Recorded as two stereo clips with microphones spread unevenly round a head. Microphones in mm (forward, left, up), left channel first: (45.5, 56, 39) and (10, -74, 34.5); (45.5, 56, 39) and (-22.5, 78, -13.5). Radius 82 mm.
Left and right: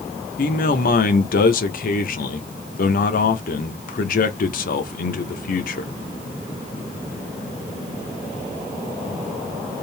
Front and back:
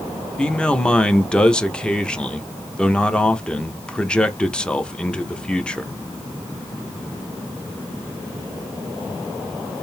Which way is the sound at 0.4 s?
55° left.